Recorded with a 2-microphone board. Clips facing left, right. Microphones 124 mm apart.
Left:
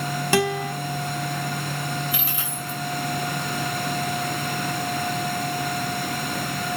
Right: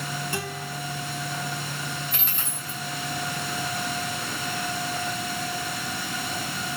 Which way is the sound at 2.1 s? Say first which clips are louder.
Left 5 dB; 5° left (ahead or behind).